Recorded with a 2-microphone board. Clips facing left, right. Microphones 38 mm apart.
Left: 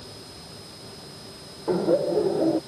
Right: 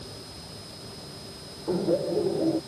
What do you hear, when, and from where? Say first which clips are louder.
1.7 s laughter: left 4 dB; 60° left (ahead or behind)